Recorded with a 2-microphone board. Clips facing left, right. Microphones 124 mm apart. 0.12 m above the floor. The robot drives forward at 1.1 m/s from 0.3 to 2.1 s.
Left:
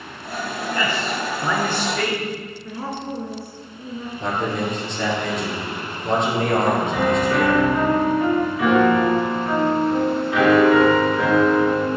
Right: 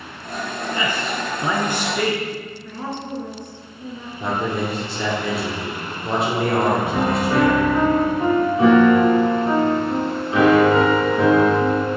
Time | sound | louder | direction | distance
0.7 | a man speaking | left 1 dB | 15° right (ahead or behind) | 1.1 m
2.6 | a woman speaking | left 2 dB | 10° left (ahead or behind) | 1.3 m
4.2 | a man speaking | right 1 dB | 5° right (ahead or behind) | 2.5 m
6.9 | a piano | even | 35° right (ahead or behind) | 1.3 m